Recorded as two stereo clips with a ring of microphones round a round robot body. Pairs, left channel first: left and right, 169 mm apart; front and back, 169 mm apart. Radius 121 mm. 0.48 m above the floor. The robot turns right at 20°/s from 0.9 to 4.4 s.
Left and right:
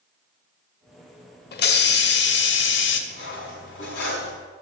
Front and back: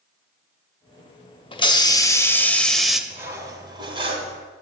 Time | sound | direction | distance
1.5 | a hiss | 60° left | 0.7 m
3.1 | cutlery clinking | 100° left | 1.9 m